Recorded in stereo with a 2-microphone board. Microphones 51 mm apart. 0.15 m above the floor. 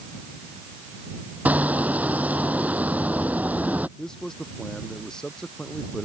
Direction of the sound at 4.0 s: 10° left (ahead or behind).